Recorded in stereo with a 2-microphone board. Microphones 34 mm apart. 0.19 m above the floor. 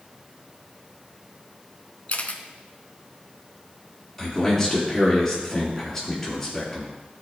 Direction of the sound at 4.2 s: 10° left (ahead or behind).